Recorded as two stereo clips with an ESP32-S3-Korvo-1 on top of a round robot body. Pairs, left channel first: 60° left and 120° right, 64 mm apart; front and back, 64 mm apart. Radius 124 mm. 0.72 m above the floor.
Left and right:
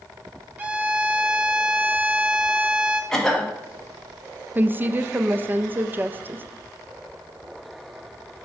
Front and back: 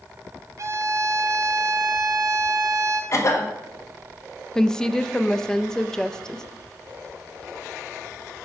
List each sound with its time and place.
0.6 s a violin: 175° right, 1.1 m
3.1 s a cough: 20° right, 1.6 m
4.5 s a woman speaking: 75° right, 0.6 m